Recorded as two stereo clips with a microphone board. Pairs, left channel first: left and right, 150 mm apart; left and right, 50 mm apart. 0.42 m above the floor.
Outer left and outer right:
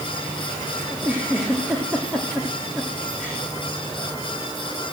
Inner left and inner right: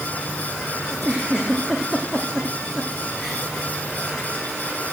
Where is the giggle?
10° right (ahead or behind), 4.5 m.